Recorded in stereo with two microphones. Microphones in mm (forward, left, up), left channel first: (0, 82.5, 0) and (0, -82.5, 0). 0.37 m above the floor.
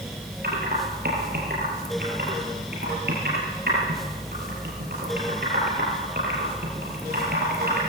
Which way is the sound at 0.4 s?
75° right (ahead or behind).